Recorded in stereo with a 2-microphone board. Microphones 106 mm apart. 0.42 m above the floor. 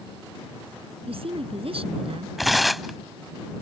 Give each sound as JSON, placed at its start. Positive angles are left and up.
{"t": 1.1, "sound": "a woman speaking", "side_deg": -65}
{"t": 2.4, "sound": "tearing paper", "side_deg": 0}